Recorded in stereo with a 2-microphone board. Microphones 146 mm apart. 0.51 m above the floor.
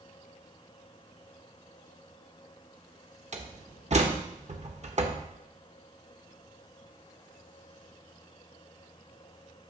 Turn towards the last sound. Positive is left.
turn(degrees=-50)  # may be behind; listen again after turning